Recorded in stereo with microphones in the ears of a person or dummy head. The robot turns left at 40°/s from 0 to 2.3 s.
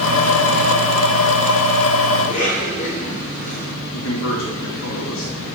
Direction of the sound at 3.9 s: 75° left (ahead or behind).